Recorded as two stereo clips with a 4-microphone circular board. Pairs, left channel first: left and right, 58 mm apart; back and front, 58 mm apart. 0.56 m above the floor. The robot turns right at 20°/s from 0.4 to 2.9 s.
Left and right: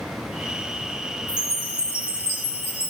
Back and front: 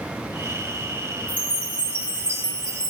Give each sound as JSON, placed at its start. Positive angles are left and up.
{"t": 1.3, "sound": "a chime", "azimuth_deg": -150, "distance_m": 1.1}